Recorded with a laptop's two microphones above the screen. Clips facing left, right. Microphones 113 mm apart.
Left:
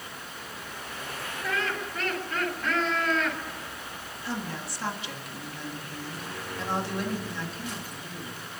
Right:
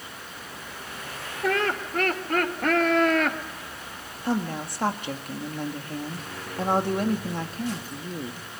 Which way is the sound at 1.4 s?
60° right (ahead or behind).